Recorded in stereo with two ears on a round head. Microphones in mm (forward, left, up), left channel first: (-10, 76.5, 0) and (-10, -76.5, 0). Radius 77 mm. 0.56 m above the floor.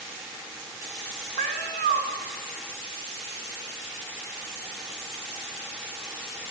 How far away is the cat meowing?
About 0.7 m.